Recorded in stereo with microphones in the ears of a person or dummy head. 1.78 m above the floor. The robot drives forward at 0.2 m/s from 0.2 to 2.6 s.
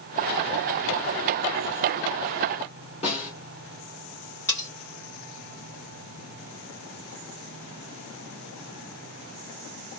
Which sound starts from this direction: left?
A snare drum, at 3.0 s.